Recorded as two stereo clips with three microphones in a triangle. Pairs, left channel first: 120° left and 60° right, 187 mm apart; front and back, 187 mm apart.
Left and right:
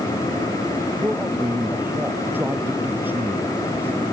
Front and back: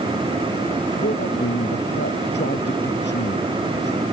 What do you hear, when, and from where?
1.0 s a man speaking: 20° left